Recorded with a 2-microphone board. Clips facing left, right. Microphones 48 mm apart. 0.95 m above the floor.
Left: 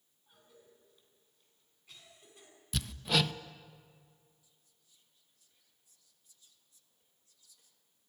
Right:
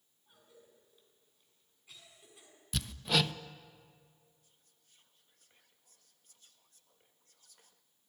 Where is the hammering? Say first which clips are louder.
Even; centre (ahead or behind), 0.6 m.